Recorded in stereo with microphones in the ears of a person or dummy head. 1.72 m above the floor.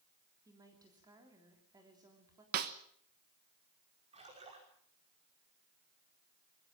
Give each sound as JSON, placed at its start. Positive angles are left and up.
{"t": 0.5, "sound": "a woman speaking", "side_deg": -15, "distance_m": 3.5}
{"t": 2.5, "sound": "a snare drum", "side_deg": -45, "distance_m": 1.2}
{"t": 4.1, "sound": "a splash", "side_deg": -30, "distance_m": 5.5}